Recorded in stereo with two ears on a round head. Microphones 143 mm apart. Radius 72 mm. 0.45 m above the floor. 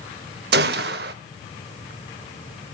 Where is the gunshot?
70° right (ahead or behind), 0.5 m.